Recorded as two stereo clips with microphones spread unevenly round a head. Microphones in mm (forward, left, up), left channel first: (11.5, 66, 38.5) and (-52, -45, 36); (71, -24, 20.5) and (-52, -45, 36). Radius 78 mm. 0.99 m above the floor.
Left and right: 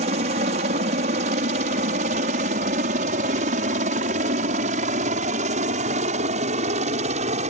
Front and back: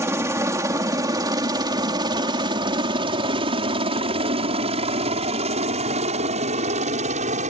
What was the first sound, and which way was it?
A helicopter, 105° right.